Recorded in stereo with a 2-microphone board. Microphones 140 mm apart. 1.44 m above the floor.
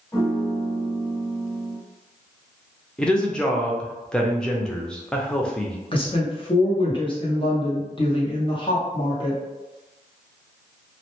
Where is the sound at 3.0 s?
5° left (ahead or behind), 0.5 m.